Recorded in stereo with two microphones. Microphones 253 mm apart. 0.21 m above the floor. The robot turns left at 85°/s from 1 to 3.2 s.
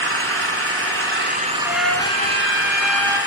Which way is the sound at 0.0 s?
110° right.